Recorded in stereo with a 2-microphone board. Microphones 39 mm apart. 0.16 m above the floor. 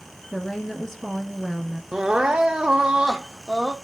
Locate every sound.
0.3 s a woman speaking: 15° left (ahead or behind), 1.6 m
1.9 s crying: 20° right (ahead or behind), 0.9 m